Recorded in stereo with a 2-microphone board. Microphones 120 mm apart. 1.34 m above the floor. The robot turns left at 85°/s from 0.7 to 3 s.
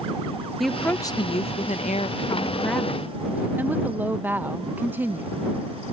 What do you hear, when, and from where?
0.6 s a woman speaking: straight behind; by 5.3 s 15° right